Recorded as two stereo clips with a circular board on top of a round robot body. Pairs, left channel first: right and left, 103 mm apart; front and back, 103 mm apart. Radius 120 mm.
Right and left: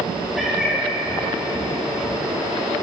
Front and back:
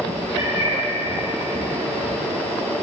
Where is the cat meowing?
Straight behind, 3.5 m.